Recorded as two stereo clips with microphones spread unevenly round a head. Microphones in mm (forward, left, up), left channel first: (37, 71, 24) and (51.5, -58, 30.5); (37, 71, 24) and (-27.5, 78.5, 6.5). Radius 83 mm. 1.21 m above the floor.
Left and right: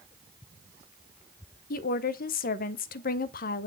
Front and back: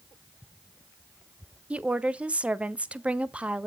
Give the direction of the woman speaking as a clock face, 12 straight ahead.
9 o'clock.